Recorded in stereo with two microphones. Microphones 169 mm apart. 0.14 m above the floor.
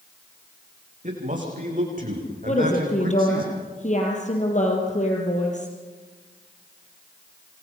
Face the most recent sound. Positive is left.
turn(degrees=45)  # may be behind; listen again after turning